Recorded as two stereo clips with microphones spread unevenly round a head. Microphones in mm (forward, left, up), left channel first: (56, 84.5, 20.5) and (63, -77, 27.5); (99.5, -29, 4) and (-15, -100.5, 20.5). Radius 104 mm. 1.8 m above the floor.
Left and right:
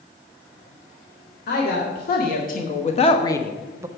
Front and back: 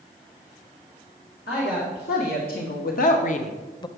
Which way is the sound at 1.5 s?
70° left.